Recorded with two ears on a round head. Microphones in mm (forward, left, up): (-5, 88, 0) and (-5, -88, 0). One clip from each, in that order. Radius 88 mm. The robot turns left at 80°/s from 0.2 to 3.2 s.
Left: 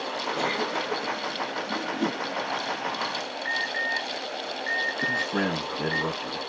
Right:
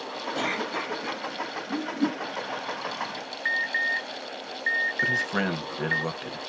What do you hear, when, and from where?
0.3 s a cough: 110° right, 2 m; by 1.2 s straight behind, 2 m
1.7 s a whoosh: 50° left (ahead or behind), 1.7 m; by 2.2 s 15° left (ahead or behind), 1.7 m
3.5 s an alarm: 75° right (ahead or behind), 1.4 m
5.0 s a man speaking: 55° right (ahead or behind), 1.4 m